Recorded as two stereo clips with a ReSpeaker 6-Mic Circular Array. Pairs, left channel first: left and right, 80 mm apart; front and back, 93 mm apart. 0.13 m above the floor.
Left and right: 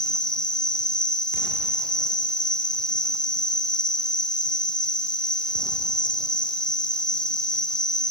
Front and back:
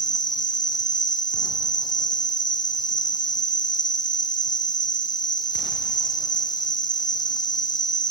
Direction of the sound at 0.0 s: 10° left.